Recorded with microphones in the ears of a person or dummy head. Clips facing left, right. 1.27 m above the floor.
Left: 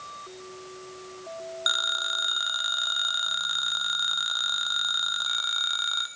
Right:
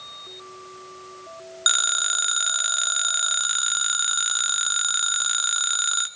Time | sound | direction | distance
1.7 | a phone ringing | 40° right (ahead or behind) | 0.8 m